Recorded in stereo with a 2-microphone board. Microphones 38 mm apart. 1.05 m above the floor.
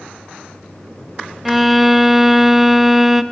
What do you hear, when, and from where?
1.4 s a violin: 5° right (ahead or behind), 0.6 m